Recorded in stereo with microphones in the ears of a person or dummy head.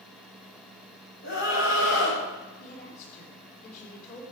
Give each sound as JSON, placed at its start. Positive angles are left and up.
{"t": 1.2, "sound": "a scream", "side_deg": 75, "distance_m": 7.5}
{"t": 2.6, "sound": "a woman speaking", "side_deg": 40, "distance_m": 3.5}